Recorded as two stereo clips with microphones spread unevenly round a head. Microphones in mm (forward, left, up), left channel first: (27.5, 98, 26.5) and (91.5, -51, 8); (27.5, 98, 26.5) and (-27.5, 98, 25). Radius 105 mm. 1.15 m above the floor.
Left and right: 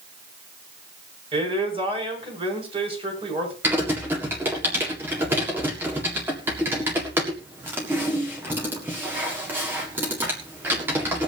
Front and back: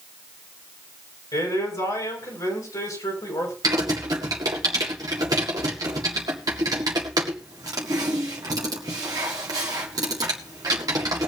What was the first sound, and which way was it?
A man speaking, 10° right.